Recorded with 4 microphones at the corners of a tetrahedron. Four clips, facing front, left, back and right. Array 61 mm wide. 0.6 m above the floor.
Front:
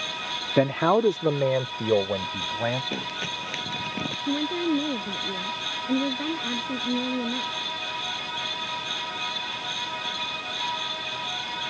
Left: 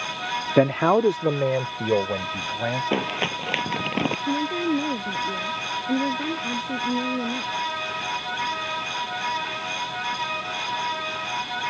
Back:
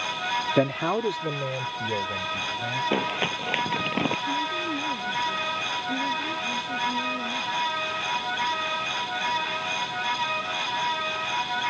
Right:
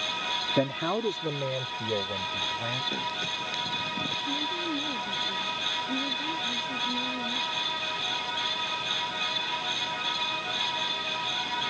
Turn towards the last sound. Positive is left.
turn(degrees=45)